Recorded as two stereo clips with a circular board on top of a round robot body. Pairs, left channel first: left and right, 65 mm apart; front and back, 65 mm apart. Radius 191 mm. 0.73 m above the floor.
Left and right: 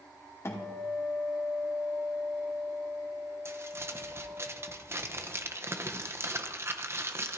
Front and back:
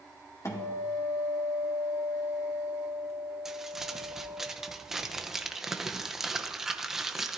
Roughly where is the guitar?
Ahead left.